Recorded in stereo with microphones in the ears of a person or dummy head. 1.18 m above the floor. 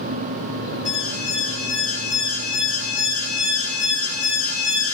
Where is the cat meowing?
No cat meowing in this recording.